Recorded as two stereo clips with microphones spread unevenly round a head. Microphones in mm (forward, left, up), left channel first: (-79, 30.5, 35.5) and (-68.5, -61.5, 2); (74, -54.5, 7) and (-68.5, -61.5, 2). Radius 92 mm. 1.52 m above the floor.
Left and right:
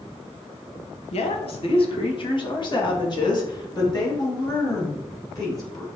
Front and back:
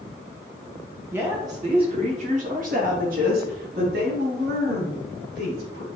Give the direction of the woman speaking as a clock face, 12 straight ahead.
9 o'clock.